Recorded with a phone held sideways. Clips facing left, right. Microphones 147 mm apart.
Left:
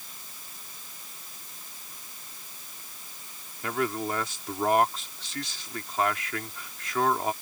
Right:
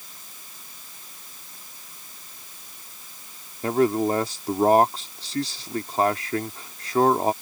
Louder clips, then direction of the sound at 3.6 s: Right 9 dB; 35° right (ahead or behind).